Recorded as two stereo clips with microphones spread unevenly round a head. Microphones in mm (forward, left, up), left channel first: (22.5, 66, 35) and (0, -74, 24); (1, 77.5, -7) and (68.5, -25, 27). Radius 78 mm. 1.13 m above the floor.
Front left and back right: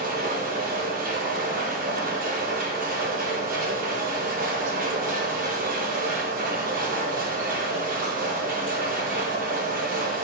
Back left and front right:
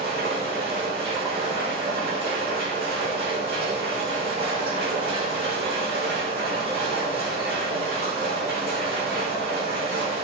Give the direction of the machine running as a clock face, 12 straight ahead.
3 o'clock.